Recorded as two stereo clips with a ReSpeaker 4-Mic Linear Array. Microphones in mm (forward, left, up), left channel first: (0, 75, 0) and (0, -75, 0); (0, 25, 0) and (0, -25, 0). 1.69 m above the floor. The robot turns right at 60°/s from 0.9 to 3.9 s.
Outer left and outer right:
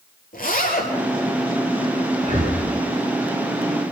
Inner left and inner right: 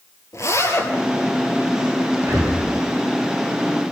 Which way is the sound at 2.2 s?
50° right (ahead or behind).